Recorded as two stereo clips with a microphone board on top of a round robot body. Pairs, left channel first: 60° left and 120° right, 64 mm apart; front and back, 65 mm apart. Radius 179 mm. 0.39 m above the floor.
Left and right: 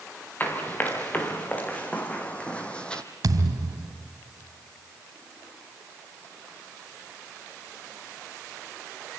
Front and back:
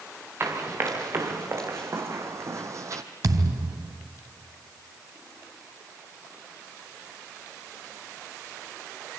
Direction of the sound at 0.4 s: 125° left.